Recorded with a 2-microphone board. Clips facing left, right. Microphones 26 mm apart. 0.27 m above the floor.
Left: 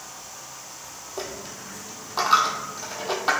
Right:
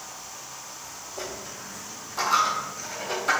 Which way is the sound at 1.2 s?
45° left (ahead or behind).